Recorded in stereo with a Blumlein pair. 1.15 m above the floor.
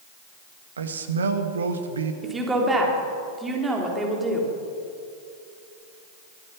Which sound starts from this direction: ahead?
A woman speaking, at 2.2 s.